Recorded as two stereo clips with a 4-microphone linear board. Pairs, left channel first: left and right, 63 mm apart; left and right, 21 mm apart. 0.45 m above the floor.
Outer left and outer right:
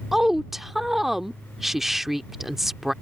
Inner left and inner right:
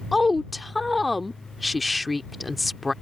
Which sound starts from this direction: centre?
A woman speaking, at 0.1 s.